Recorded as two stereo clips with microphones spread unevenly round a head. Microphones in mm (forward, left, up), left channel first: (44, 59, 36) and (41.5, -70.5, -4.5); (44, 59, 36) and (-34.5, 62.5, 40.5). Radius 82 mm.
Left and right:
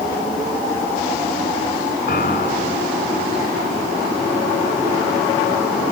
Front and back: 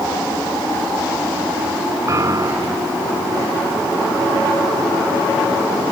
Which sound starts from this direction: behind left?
A piano, at 2.1 s.